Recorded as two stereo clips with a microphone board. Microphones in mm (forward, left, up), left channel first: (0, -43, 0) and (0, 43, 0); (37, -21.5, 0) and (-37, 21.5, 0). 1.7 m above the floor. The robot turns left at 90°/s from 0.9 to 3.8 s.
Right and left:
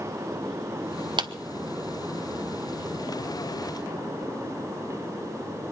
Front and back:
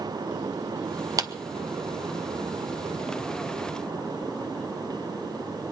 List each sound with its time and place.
1.2 s a clap: 110° left, 0.9 m; by 1.3 s 100° left, 0.9 m